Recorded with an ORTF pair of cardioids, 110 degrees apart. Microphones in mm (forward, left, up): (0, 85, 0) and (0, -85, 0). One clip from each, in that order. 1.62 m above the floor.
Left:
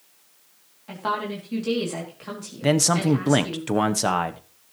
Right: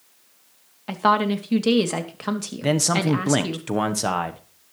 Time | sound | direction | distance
0.9 | a woman speaking | 55° right | 3 m
2.6 | a man speaking | 10° left | 1.0 m